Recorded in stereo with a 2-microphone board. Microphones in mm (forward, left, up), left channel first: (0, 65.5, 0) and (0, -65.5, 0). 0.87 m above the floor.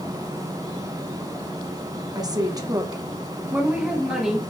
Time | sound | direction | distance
2.1 | a woman speaking | 30° right (ahead or behind) | 0.8 m